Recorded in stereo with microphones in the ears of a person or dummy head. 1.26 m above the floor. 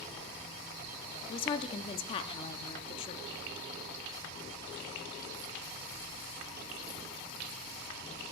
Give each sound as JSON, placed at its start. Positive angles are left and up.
{"t": 1.3, "sound": "a woman speaking", "side_deg": 35, "distance_m": 0.6}